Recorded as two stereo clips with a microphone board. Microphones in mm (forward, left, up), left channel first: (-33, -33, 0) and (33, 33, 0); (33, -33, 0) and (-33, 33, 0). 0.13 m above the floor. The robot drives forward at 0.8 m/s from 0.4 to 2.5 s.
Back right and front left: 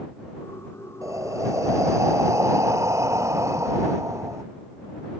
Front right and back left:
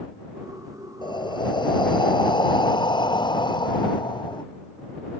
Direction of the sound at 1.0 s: 10° right.